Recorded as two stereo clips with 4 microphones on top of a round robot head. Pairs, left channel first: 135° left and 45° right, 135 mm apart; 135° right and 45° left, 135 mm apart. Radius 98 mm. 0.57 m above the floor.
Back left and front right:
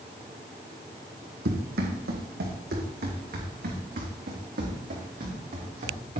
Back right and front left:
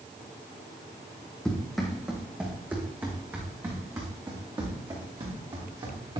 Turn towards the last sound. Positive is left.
turn(degrees=-10)